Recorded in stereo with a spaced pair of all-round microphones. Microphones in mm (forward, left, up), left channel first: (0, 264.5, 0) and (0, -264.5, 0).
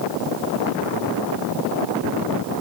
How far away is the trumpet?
No trumpet in this recording.